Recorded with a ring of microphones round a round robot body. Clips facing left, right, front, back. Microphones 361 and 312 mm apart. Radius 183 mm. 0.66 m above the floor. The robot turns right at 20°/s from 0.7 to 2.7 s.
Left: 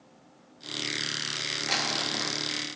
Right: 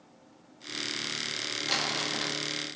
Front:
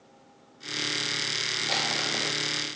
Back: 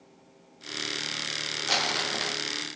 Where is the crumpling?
175° left, 1.2 m; by 2.4 s 170° right, 1.2 m.